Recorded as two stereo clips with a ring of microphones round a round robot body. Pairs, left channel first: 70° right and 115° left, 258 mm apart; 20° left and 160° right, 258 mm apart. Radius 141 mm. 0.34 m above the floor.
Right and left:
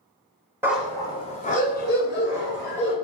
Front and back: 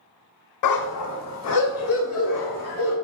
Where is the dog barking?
30° left, 0.7 m; by 2.9 s 20° right, 2.5 m.